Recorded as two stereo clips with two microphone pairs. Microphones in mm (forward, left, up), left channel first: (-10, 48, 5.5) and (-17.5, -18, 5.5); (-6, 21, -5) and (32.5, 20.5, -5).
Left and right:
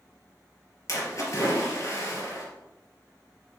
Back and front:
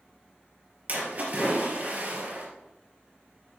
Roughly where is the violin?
I don't hear a violin.